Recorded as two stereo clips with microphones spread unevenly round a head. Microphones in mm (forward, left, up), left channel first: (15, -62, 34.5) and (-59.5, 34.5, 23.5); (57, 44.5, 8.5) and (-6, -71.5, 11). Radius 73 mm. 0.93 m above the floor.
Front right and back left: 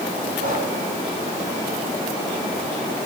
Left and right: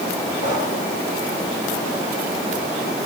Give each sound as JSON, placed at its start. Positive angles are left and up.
{"t": 0.4, "sound": "breathing", "azimuth_deg": 100, "distance_m": 8.0}